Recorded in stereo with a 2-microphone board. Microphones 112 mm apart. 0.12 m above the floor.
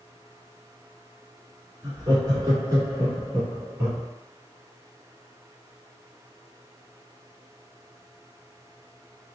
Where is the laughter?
40° right (ahead or behind), 1.4 m; by 4.1 s 15° right (ahead or behind), 1.6 m.